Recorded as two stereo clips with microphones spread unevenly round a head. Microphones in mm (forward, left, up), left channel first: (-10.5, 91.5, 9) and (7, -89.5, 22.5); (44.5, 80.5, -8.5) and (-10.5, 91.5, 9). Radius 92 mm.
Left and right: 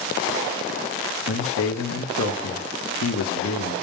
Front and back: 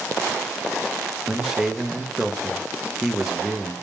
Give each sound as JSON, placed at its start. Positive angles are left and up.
{"t": 1.3, "sound": "a man speaking", "azimuth_deg": 85, "distance_m": 1.0}